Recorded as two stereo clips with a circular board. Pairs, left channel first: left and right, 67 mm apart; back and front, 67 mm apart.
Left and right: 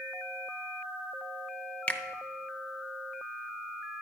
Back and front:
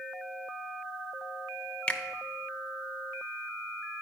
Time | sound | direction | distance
1.9 | a finger snap | 135° left | 0.5 m